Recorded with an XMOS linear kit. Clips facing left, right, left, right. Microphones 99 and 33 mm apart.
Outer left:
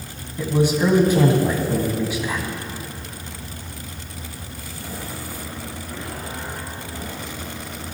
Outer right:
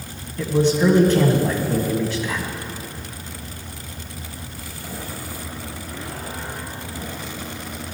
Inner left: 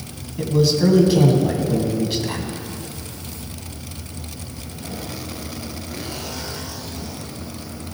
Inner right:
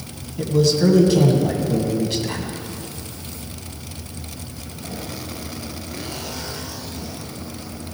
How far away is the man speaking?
About 1.6 m.